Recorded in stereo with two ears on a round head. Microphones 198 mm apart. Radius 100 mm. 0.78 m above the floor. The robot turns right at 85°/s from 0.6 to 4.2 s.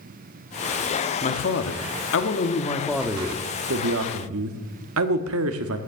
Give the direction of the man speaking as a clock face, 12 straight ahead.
11 o'clock.